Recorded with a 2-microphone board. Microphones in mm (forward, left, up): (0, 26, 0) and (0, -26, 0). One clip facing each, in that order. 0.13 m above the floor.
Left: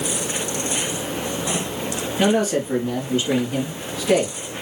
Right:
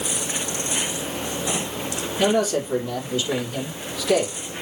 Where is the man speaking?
40° left (ahead or behind), 3 m.